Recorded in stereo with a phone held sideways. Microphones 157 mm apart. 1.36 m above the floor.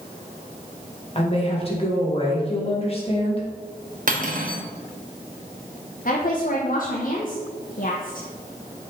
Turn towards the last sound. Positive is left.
turn(degrees=60)  # may be behind; listen again after turning